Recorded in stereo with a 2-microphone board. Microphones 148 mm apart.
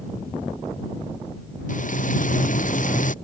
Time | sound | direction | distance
1.7 | frying | 60° left (ahead or behind) | ?